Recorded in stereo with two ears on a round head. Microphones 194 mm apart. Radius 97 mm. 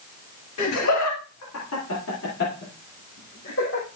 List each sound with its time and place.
0.6 s laughter: 90° left, 2.0 m; by 3.9 s 55° left (ahead or behind), 4 m